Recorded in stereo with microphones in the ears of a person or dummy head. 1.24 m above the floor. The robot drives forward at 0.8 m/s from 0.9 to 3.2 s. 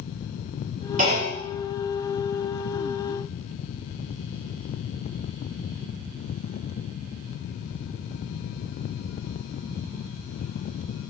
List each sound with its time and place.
1.0 s a clunk: 35° right (ahead or behind), 1.1 m; by 1.4 s 30° right (ahead or behind), 1.4 m